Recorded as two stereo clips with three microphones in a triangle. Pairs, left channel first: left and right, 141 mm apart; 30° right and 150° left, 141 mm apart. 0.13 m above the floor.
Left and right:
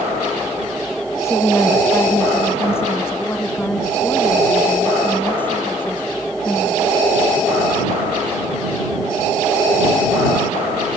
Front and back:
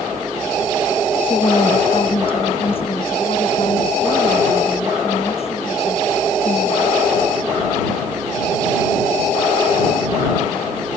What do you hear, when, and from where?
1.2 s a woman speaking: 20° left; by 7.0 s 15° left